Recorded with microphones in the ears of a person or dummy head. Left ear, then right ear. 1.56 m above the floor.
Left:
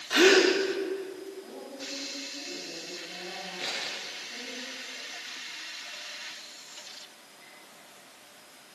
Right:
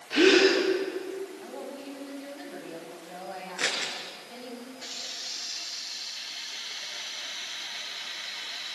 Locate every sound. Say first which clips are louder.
0.1 s a gasp: even; 50° left (ahead or behind), 4.5 m
1.4 s a woman speaking: right 2 dB; 40° right (ahead or behind), 9.5 m
3.6 s scissors: right 5 dB; 40° right (ahead or behind), 6 m